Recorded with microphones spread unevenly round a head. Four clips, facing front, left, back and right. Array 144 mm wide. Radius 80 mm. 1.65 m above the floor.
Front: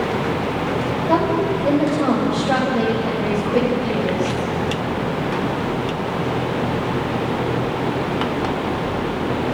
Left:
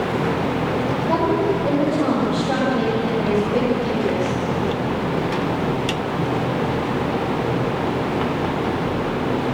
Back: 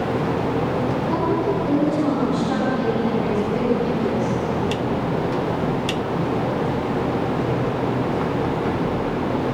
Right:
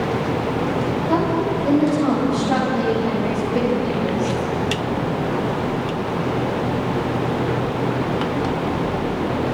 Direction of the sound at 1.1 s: 15° left.